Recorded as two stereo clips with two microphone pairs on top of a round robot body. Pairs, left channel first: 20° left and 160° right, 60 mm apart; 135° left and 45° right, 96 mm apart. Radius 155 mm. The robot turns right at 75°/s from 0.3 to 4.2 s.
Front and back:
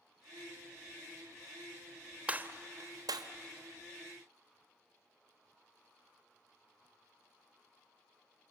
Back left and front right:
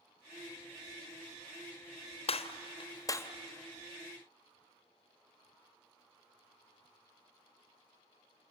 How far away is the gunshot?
About 1.2 m.